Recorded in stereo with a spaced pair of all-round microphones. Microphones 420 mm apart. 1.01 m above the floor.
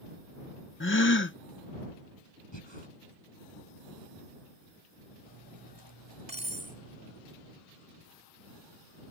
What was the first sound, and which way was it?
A gasp, 30° left (ahead or behind).